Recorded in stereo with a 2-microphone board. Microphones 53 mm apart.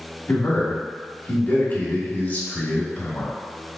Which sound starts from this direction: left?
A man speaking, at 0.3 s.